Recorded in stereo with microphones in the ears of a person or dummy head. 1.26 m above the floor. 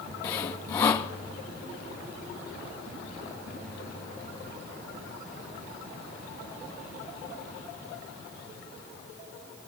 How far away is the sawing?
About 0.5 m.